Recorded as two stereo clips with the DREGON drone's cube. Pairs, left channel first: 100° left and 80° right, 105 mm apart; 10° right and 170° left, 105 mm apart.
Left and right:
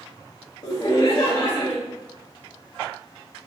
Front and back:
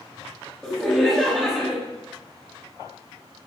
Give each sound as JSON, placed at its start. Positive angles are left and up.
{"t": 0.6, "sound": "laughter", "azimuth_deg": 75, "distance_m": 0.7}